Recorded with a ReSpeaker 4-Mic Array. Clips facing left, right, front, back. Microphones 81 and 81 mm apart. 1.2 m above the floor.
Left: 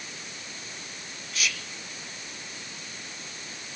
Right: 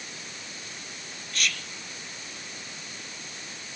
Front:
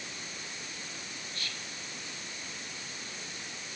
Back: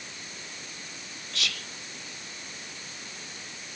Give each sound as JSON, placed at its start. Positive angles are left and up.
{"t": 1.3, "sound": "whispering", "azimuth_deg": 175, "distance_m": 0.9}